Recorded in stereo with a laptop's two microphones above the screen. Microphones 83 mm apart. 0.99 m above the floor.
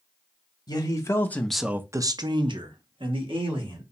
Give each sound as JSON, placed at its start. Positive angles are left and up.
{"t": 0.7, "sound": "a man speaking", "side_deg": 45, "distance_m": 0.9}